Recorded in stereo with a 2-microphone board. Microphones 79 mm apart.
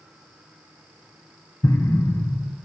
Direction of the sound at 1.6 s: 45° left (ahead or behind).